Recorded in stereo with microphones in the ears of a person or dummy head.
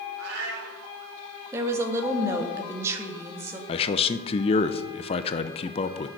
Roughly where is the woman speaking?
Centre.